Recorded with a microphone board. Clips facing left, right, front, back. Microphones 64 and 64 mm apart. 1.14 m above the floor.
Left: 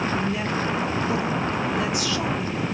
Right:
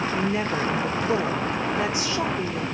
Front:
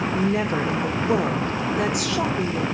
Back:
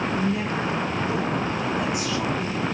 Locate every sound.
0.1 s a woman speaking: 25° right, 1.1 m